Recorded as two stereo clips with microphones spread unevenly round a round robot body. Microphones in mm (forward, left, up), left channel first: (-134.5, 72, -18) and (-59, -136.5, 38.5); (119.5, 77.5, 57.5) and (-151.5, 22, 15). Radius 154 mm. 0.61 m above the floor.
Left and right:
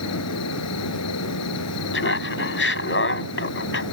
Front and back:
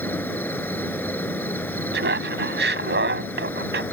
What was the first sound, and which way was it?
An insect, 95° left.